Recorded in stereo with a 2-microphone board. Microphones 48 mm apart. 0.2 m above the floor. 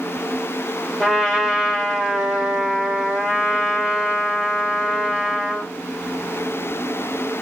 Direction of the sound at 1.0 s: Centre (ahead or behind).